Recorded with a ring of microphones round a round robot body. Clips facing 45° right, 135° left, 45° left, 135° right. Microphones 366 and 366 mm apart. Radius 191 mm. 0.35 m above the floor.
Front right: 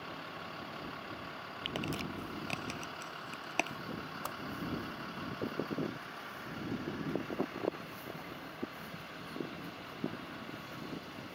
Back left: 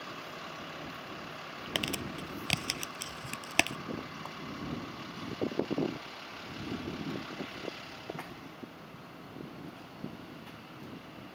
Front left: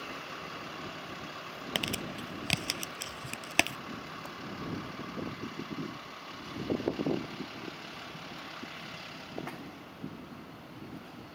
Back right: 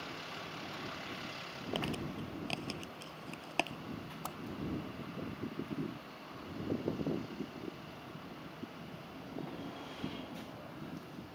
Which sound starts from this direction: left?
Crumpling, at 1.8 s.